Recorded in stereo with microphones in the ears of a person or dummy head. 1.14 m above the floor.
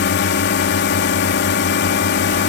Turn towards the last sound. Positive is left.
turn(degrees=60)  # may be behind; listen again after turning